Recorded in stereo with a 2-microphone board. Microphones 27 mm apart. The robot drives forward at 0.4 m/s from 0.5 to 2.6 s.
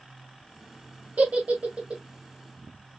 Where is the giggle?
65° right (ahead or behind), 1.5 m; by 2.0 s 60° right (ahead or behind), 1.6 m.